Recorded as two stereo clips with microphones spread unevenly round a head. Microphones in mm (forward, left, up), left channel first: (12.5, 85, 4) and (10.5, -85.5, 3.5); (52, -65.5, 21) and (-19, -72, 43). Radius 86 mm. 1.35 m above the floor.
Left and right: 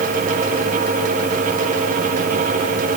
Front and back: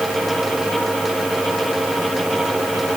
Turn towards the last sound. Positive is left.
No sound to turn to.